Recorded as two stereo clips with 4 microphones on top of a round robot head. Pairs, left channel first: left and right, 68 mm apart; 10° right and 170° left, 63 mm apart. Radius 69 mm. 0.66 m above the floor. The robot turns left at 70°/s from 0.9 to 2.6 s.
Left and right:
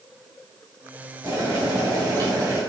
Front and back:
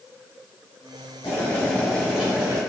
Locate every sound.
1.2 s boiling: 40° right, 3 m; by 2.6 s 135° right, 3 m